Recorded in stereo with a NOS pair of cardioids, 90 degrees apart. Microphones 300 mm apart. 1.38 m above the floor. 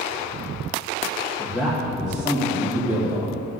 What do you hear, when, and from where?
1.4 s a man speaking: straight ahead, 1.9 m; by 3.4 s 5° right, 3 m